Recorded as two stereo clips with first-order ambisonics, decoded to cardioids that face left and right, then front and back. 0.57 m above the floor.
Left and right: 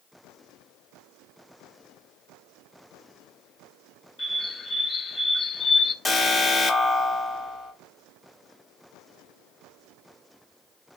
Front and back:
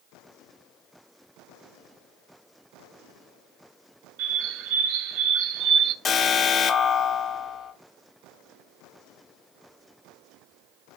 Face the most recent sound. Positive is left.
turn(degrees=10)